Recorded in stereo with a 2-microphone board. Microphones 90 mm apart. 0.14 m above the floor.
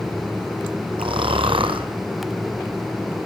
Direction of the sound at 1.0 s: 75° right (ahead or behind).